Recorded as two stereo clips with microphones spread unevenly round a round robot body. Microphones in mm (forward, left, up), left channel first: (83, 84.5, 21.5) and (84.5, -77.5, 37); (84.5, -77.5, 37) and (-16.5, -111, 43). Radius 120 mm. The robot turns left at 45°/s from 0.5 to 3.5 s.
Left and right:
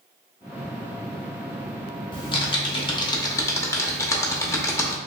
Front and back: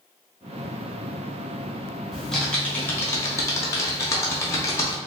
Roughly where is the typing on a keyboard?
Left.